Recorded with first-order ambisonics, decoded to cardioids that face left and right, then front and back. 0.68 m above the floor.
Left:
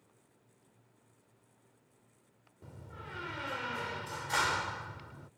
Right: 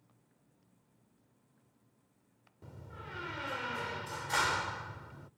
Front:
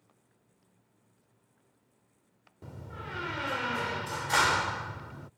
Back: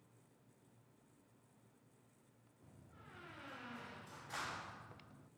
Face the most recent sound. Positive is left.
turn(degrees=0)